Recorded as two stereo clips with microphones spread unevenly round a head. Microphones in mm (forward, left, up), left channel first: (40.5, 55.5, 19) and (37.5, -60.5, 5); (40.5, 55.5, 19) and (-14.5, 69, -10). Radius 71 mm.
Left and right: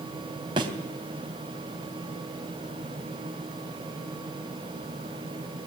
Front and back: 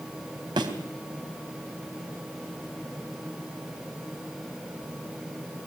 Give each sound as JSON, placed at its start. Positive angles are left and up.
{"t": 0.6, "sound": "a thud", "azimuth_deg": -155, "distance_m": 3.0}